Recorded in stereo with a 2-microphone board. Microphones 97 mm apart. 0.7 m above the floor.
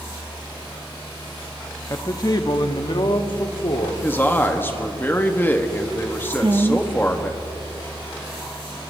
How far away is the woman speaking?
About 0.8 m.